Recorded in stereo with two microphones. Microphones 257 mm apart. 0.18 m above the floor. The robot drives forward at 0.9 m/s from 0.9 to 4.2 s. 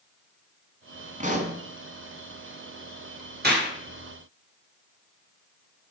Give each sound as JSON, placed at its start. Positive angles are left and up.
{"t": 1.2, "sound": "a pop", "side_deg": -30, "distance_m": 1.5}
{"t": 3.4, "sound": "a clap", "side_deg": -45, "distance_m": 2.5}